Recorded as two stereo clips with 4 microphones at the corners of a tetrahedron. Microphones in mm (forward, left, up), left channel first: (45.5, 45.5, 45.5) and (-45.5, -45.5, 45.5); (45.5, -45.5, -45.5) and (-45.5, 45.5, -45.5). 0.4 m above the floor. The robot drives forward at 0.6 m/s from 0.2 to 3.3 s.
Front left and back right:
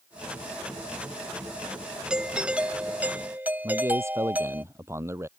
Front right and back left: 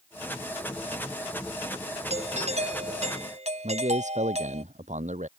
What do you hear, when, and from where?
2.1 s a doorbell: 140° left; by 4.6 s 150° left
3.6 s a man speaking: 155° left